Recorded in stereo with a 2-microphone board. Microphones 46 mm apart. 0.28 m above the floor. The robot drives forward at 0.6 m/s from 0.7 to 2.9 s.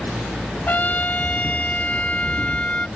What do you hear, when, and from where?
0.7 s a trumpet: 40° left (ahead or behind); by 2.9 s 25° left (ahead or behind)